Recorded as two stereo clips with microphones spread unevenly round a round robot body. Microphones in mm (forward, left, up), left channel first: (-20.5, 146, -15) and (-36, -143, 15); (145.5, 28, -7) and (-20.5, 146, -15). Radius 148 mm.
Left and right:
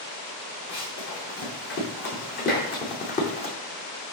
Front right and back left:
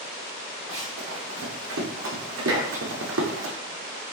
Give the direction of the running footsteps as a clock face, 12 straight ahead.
7 o'clock.